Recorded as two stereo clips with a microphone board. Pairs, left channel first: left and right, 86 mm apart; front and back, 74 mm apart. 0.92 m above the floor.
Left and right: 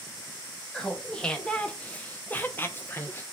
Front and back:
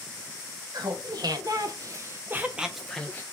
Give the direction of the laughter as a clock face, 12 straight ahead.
6 o'clock.